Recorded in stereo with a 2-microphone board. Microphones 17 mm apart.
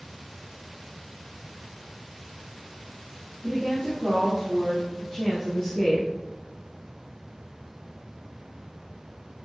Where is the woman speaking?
10° left (ahead or behind), 3.5 m; by 6.1 s 10° right (ahead or behind), 4.5 m.